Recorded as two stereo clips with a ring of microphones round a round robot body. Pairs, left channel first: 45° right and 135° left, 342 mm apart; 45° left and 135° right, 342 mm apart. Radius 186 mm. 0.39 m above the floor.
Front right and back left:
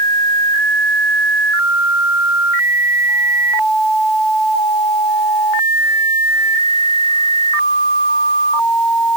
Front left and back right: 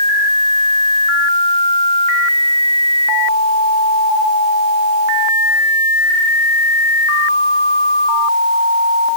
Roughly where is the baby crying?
No baby crying in this recording.